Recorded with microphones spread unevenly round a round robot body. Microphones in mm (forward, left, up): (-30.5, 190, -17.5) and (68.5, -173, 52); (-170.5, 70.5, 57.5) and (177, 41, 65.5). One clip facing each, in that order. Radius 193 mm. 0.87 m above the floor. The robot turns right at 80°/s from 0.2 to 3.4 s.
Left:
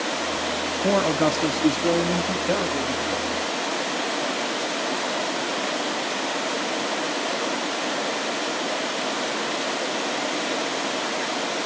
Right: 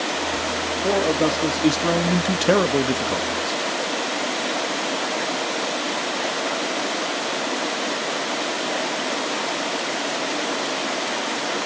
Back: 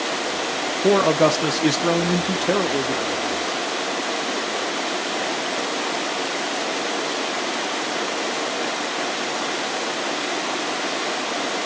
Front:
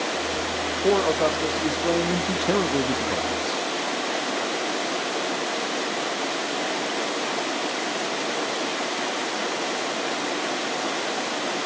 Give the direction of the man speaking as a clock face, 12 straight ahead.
7 o'clock.